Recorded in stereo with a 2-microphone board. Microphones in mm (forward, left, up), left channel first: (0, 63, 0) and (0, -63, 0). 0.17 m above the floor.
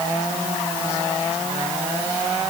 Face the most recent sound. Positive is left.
No sound to turn to.